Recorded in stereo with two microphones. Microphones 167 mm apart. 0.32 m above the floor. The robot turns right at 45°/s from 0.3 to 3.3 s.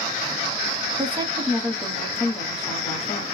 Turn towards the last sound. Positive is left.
turn(degrees=65)